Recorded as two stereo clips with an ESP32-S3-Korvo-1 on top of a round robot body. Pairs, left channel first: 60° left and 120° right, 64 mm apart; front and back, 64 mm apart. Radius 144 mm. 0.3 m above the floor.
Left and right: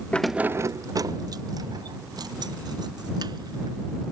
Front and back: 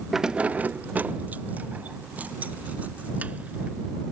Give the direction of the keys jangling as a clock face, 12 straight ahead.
9 o'clock.